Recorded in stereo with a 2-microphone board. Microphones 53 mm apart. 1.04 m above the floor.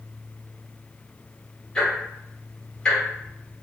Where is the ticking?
15° left (ahead or behind), 1.5 m.